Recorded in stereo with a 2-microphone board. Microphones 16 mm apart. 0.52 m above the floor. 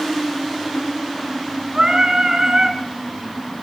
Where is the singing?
35° right (ahead or behind), 5.5 m.